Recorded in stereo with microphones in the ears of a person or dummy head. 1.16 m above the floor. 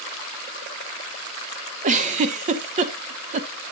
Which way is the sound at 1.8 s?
35° right (ahead or behind).